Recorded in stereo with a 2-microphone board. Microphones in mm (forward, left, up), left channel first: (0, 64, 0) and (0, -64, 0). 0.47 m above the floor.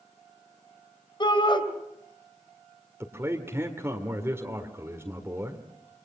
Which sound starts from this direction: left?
A shout, at 1.2 s.